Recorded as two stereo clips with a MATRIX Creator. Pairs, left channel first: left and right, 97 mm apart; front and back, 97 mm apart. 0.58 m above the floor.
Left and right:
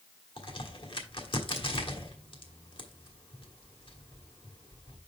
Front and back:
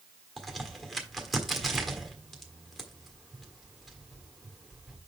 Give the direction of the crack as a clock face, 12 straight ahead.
9 o'clock.